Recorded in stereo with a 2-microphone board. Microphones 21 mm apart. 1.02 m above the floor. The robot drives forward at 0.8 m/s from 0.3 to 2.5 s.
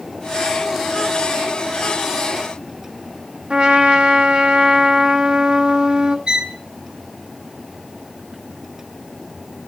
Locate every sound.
3.5 s a trumpet: 45° right (ahead or behind), 1.5 m
6.3 s a violin: 45° right (ahead or behind), 0.7 m